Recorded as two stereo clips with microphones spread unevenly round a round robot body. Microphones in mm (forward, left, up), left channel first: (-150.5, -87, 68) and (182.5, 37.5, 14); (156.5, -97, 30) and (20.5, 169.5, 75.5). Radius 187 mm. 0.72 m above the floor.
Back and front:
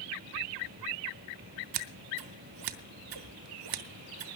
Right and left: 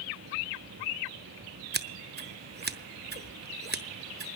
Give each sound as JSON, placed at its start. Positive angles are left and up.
{"t": 1.7, "sound": "scissors", "azimuth_deg": 60, "distance_m": 1.0}